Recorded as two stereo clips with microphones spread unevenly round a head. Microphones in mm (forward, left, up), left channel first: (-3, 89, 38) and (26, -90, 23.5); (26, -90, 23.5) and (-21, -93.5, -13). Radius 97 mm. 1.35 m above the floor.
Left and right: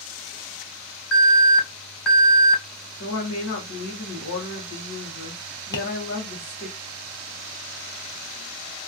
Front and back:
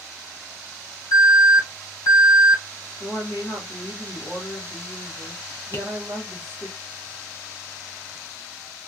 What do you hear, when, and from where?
1.1 s an alarm: 10° left, 1.7 m
3.0 s a woman speaking: 75° left, 1.0 m
5.7 s tapping: 30° left, 0.8 m